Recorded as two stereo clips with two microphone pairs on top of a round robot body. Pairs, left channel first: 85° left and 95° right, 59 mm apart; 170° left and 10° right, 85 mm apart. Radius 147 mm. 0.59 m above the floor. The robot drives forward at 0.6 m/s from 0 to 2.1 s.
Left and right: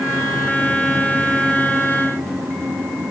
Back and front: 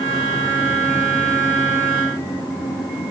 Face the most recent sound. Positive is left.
No sound to turn to.